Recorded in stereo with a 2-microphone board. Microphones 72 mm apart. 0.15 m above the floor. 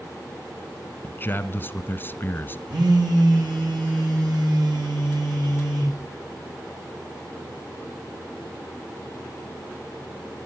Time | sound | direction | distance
1.0 | a man speaking | 30° left (ahead or behind) | 1.2 m
2.7 | a phone buzzing | 80° right | 6 m